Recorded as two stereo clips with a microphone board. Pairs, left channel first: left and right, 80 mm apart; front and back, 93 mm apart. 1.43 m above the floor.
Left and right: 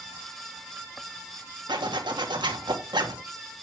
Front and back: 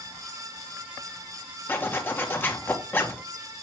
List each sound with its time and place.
1.7 s a zipper: 70° right, 1.6 m